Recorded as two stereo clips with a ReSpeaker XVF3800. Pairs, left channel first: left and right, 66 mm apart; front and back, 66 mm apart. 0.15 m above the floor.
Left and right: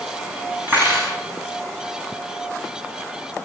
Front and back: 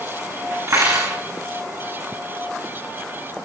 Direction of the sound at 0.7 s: 145° right.